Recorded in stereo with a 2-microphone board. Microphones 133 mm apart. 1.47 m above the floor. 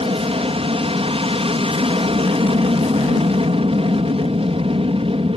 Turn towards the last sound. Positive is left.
turn(degrees=-45)  # may be behind; listen again after turning